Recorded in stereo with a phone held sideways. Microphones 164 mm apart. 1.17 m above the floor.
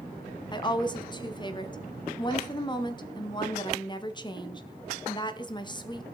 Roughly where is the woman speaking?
Left.